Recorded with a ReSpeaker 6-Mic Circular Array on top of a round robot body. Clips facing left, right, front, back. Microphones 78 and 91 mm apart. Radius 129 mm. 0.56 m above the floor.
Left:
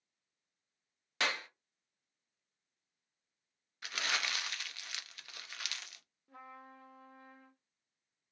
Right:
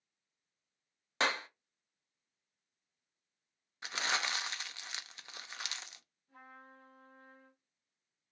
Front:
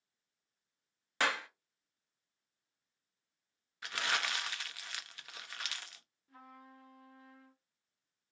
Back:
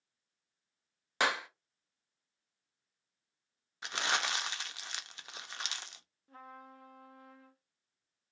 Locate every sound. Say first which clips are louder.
1.2 s a clap: right 3 dB, back 2 dB; 120° right, 0.7 m
3.8 s crumpling: right 2 dB, back 2 dB; 135° right, 0.5 m
6.3 s a trumpet: left 3 dB, back 4 dB; 125° left, 0.5 m